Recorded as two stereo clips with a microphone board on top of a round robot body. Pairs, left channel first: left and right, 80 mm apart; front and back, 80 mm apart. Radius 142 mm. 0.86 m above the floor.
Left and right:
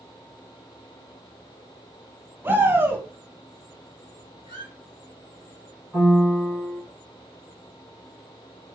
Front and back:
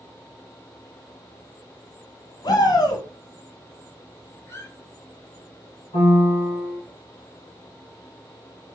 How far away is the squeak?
About 0.7 m.